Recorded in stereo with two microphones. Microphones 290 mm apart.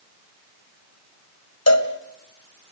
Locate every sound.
1.7 s a cowbell: 60° left (ahead or behind), 2 m